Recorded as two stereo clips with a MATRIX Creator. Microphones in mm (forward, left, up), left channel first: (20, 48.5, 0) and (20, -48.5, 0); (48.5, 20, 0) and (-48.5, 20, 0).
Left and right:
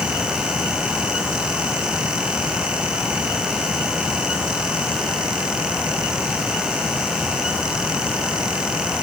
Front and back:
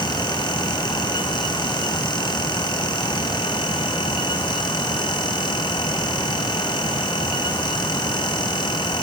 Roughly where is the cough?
I don't hear a cough.